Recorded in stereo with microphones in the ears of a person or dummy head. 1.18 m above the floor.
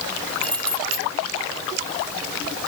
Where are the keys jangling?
5° left (ahead or behind).